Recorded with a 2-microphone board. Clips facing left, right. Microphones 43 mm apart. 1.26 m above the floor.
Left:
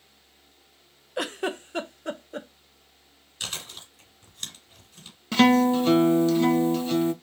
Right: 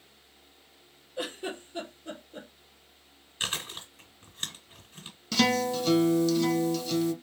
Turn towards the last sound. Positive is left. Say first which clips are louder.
# left 7 dB
turn(degrees=30)  # may be behind; listen again after turning